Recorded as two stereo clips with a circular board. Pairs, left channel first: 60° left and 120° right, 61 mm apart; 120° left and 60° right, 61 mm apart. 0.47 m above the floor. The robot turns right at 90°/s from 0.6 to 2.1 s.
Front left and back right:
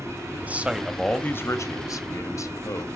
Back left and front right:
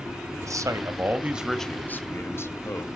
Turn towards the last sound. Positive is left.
turn(degrees=80)